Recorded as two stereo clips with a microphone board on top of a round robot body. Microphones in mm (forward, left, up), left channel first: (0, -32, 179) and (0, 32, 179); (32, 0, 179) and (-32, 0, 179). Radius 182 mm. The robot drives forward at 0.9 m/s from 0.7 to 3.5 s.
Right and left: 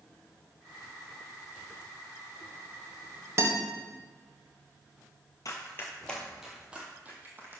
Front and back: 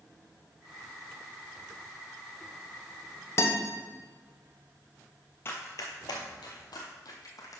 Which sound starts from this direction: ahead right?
Running footsteps, at 5.5 s.